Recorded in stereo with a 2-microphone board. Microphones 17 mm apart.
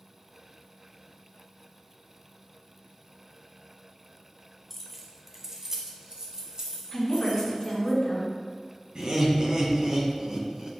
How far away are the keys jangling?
About 1.1 m.